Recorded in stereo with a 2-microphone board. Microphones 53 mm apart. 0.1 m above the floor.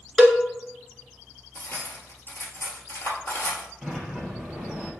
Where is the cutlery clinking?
50° left (ahead or behind), 1.3 m.